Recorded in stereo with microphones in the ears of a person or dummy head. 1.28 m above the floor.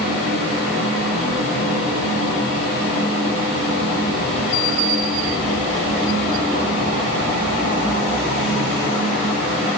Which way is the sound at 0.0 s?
80° left.